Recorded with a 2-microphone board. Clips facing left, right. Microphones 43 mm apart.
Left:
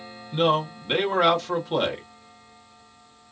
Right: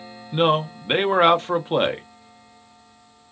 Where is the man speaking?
35° right (ahead or behind), 0.5 m.